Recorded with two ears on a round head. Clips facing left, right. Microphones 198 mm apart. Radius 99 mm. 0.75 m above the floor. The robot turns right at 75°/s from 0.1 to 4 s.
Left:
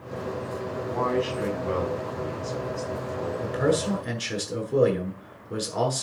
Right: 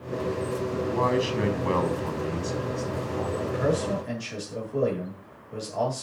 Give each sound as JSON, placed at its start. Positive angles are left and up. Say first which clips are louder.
{"t": 0.7, "sound": "a man speaking", "louder": "even", "azimuth_deg": -160, "distance_m": 6.0}
{"t": 3.4, "sound": "a man speaking", "louder": "left 3 dB", "azimuth_deg": 30, "distance_m": 8.0}